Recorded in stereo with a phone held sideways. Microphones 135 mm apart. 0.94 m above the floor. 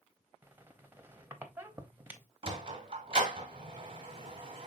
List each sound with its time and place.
0.4 s a squeak: 15° right (ahead or behind), 0.7 m
2.4 s a sliding door: 40° right (ahead or behind), 1.1 m